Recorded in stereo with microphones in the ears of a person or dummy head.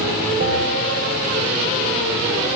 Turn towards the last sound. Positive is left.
turn(degrees=-55)  # may be behind; listen again after turning